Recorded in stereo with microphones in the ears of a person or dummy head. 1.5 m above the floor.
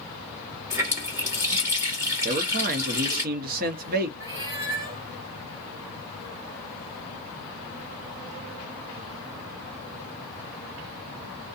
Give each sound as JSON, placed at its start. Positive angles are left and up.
{"t": 0.7, "sound": "a running tap", "side_deg": -20, "distance_m": 1.5}
{"t": 2.2, "sound": "a man speaking", "side_deg": -55, "distance_m": 0.8}
{"t": 4.2, "sound": "a cat meowing", "side_deg": -20, "distance_m": 1.4}